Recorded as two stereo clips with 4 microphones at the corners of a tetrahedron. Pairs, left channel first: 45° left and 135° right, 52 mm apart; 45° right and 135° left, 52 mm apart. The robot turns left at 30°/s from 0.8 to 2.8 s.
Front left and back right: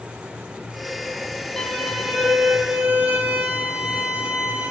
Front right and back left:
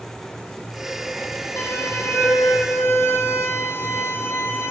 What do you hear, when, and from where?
1.6 s a violin: 30° right, 2.5 m; by 4.7 s 70° right, 2.5 m